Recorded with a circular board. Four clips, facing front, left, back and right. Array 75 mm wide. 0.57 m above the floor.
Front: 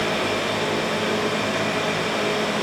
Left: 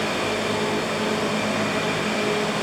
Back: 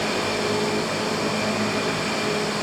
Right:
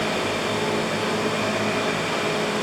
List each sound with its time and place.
Only background noise.